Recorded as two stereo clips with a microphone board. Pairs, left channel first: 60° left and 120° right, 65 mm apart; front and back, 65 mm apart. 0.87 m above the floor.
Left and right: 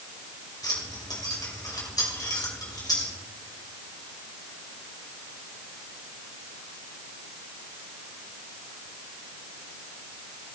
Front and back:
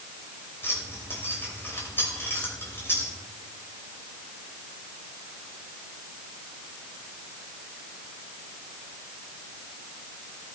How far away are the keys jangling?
About 3 m.